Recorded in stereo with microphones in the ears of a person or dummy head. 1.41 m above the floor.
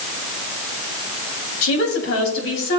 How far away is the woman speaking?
About 3 m.